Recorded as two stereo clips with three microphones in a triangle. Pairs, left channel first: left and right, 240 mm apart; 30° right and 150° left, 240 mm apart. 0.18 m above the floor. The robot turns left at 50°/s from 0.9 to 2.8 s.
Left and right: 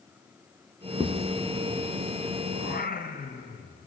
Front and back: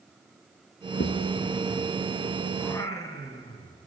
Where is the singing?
55° left, 2.0 m; by 3.9 s 45° left, 2.0 m.